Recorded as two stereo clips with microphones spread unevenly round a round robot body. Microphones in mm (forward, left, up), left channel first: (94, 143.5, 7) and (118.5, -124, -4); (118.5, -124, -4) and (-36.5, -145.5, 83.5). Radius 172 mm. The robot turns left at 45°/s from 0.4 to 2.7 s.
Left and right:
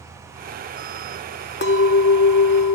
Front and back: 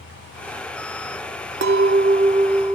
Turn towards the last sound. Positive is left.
turn(degrees=95)